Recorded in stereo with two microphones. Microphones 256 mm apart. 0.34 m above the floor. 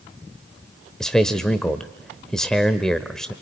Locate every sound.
1.0 s a man speaking: 5° left (ahead or behind), 0.9 m